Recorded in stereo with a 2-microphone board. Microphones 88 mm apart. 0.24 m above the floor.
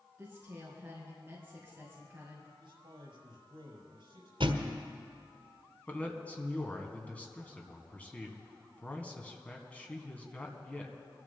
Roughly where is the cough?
No cough in this recording.